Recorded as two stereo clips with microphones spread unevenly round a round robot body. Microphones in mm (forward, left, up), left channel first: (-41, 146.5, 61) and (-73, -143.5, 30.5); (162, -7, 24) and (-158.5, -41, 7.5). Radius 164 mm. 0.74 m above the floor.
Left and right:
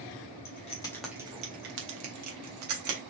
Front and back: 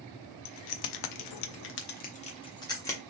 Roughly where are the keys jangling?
Ahead left.